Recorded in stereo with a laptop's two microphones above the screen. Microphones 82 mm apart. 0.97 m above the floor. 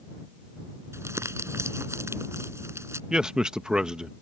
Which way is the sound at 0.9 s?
35° right (ahead or behind).